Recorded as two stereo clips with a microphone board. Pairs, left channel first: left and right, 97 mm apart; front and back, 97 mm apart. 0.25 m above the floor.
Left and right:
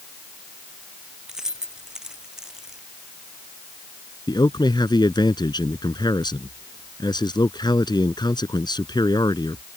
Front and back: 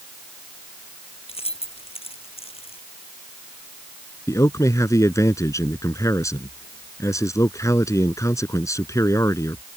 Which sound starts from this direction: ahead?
Keys jangling, at 1.3 s.